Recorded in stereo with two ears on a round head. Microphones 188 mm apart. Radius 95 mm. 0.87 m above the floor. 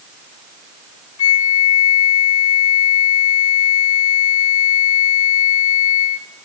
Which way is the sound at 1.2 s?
70° left (ahead or behind).